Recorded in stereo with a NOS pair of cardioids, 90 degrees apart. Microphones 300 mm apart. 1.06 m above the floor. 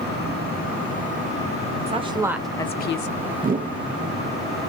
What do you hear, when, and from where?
1.9 s a woman speaking: 20° right, 0.9 m; by 3.1 s 60° left, 0.5 m
3.4 s a whoosh: 30° right, 0.5 m